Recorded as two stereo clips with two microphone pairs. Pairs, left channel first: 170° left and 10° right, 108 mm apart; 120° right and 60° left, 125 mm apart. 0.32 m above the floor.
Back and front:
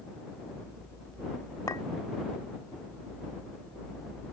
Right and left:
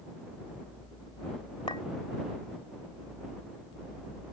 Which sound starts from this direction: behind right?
A clink, at 1.7 s.